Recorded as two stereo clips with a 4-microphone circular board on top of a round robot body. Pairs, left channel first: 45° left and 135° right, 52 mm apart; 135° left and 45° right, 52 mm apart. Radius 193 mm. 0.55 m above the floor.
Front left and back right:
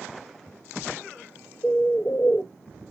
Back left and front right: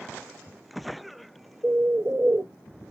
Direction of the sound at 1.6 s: 10° right.